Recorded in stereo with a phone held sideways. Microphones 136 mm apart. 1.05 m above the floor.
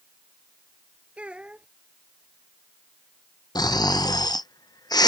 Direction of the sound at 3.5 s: 30° left (ahead or behind).